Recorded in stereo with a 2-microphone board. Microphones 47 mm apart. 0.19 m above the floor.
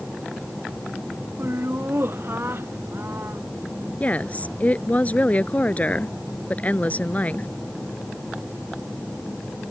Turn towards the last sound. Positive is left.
turn(degrees=35)  # may be behind; listen again after turning